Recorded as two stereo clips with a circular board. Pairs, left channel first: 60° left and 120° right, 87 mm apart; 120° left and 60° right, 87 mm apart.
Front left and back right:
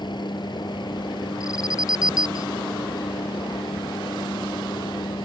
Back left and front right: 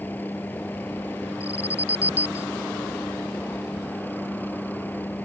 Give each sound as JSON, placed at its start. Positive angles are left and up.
{"t": 0.0, "sound": "a helicopter", "azimuth_deg": 55}
{"t": 1.4, "sound": "an alarm", "azimuth_deg": 10}